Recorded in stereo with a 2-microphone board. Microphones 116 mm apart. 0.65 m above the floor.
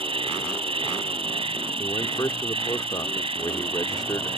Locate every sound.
0.0 s an insect: 55° right (ahead or behind)
1.8 s a man speaking: 35° left (ahead or behind)